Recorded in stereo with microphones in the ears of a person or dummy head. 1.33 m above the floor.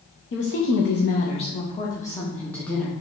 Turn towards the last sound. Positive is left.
turn(degrees=10)  # may be behind; listen again after turning